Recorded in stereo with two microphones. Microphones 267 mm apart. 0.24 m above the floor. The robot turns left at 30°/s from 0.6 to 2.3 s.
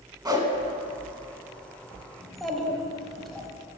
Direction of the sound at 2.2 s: Centre (ahead or behind).